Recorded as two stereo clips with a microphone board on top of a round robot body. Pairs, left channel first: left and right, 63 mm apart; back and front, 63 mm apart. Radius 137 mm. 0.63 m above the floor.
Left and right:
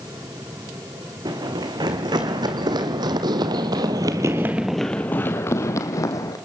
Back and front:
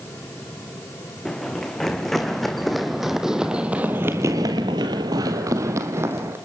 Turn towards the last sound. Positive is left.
turn(degrees=55)